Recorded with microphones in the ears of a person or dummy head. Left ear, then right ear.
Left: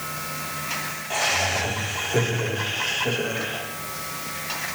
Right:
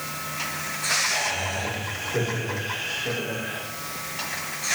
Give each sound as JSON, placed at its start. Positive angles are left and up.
{"t": 1.1, "sound": "laughter", "side_deg": 90, "distance_m": 5.5}